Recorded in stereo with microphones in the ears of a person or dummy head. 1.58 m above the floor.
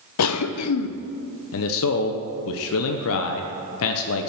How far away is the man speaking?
About 0.9 m.